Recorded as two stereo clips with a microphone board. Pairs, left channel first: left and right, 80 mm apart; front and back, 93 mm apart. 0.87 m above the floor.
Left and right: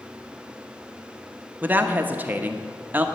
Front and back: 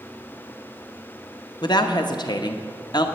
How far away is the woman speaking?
About 0.9 m.